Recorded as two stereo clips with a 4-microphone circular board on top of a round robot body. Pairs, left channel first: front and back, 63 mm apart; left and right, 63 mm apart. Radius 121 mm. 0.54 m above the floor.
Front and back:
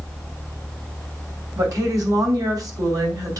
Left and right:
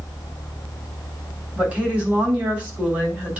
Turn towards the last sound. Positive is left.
turn(degrees=-160)